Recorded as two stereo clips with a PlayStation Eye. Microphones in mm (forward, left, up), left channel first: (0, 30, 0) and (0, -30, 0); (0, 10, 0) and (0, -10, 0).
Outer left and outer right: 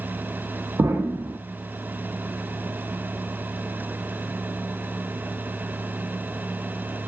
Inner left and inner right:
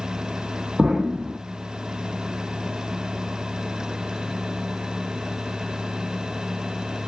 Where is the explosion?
50° right (ahead or behind), 0.9 m.